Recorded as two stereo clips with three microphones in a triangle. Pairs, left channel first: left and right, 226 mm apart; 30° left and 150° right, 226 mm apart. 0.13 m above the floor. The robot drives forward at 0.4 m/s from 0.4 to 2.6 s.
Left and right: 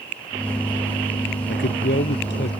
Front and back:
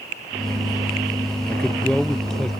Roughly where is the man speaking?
Left.